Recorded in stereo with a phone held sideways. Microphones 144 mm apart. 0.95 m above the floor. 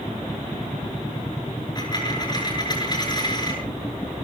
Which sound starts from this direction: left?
A dropped coin, at 1.8 s.